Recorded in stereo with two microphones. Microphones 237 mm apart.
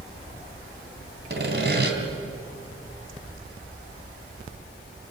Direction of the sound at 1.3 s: 45° right (ahead or behind).